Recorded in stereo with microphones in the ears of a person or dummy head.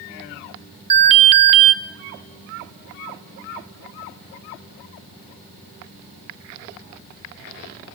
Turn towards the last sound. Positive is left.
turn(degrees=-40)  # may be behind; listen again after turning